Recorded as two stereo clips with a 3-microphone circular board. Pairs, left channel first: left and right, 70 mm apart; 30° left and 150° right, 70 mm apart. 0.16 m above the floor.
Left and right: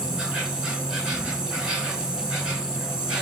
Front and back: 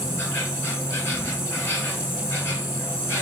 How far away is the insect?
About 1.5 m.